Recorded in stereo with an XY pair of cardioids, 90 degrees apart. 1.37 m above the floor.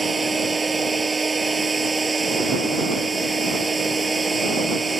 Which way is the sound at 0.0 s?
25° right.